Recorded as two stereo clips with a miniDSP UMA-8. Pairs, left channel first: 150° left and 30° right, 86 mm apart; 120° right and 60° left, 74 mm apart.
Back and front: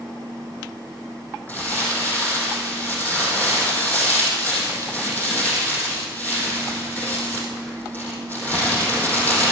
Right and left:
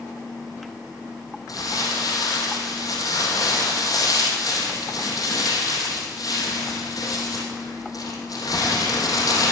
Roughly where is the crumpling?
Behind right.